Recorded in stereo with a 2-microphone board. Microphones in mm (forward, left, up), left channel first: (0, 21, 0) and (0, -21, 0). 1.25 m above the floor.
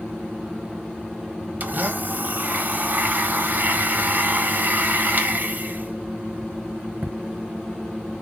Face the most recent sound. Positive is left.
turn(degrees=-45)  # may be behind; listen again after turning